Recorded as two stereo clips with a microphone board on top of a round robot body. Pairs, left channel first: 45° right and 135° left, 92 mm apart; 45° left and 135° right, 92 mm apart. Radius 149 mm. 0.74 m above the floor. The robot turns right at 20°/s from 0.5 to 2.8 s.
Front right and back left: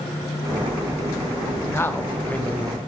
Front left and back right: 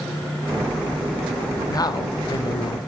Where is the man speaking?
10° left, 0.7 m; by 2.8 s 35° left, 0.7 m.